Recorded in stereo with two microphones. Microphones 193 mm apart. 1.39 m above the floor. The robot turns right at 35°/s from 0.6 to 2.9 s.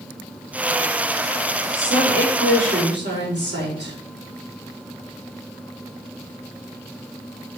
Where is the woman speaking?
105° right, 4 m; by 4.0 s 65° right, 4 m.